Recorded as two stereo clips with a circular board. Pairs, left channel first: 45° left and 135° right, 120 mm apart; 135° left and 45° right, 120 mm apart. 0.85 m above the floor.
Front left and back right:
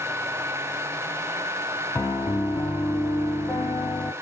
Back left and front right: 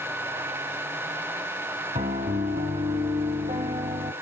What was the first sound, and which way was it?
A piano, 30° right.